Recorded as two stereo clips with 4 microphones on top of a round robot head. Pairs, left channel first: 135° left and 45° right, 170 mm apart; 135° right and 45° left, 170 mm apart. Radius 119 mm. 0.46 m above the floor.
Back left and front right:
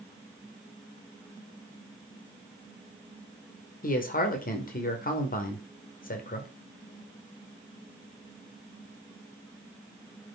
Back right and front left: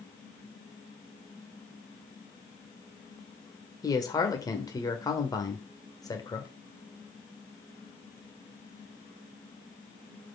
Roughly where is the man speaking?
Behind left.